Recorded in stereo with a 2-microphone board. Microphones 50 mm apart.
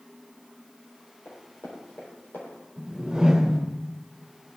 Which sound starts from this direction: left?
Running footsteps, at 1.2 s.